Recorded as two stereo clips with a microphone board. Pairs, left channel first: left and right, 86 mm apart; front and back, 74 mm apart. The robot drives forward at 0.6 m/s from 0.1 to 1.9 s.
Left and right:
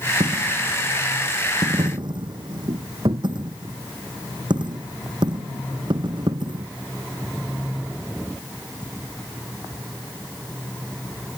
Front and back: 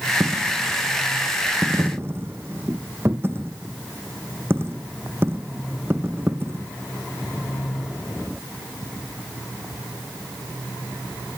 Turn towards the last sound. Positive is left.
turn(degrees=-120)